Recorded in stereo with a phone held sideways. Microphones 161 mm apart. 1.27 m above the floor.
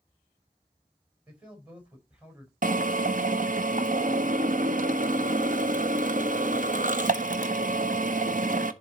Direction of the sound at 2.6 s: 55° right (ahead or behind).